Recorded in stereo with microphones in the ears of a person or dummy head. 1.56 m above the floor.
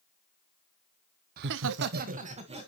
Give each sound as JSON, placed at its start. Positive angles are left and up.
{"t": 1.4, "sound": "laughter", "side_deg": -55, "distance_m": 0.6}